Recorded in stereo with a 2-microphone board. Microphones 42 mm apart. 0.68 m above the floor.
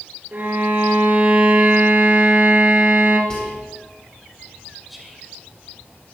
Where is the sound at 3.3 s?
20° left (ahead or behind), 1.2 m.